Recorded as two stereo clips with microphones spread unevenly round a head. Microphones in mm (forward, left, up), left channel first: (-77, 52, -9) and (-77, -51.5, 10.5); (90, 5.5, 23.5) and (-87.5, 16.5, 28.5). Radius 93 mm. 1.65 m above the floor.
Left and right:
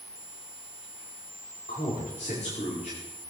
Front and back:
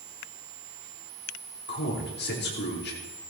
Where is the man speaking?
30° left, 4.5 m.